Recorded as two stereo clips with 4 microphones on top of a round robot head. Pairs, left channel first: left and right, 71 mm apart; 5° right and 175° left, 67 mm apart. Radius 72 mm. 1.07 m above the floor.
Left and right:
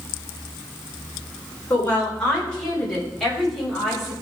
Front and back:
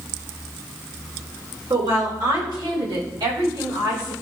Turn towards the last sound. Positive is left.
turn(degrees=180)